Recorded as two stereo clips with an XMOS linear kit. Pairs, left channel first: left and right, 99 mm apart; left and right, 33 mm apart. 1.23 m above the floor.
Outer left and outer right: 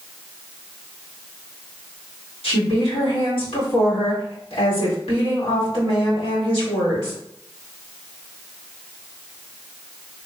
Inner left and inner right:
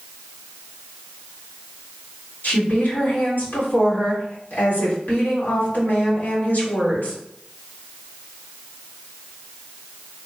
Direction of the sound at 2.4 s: 85° left.